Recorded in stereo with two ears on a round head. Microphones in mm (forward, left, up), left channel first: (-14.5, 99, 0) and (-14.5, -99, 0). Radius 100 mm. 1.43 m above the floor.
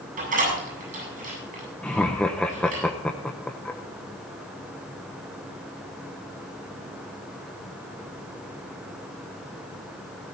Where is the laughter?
5° left (ahead or behind), 0.7 m.